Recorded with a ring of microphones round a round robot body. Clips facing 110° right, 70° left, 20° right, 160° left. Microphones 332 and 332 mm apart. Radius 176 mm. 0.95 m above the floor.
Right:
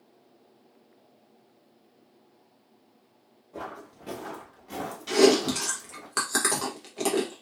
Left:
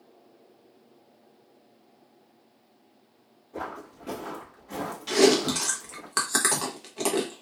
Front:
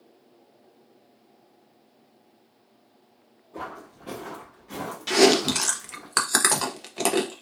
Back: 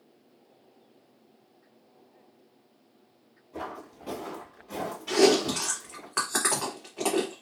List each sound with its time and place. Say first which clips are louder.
3.5 s footsteps: left 2 dB, even; 160° left, 1.0 m; by 6.1 s 70° right, 1.5 m
5.1 s chewing: right 1 dB, front 2 dB; 20° right, 0.7 m